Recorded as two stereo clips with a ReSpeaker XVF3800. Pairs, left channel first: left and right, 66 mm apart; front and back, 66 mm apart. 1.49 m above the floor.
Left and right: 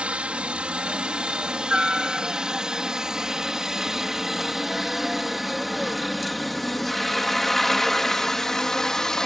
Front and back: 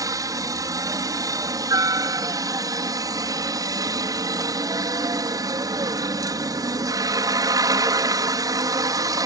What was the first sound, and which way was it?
A helicopter, 160° right.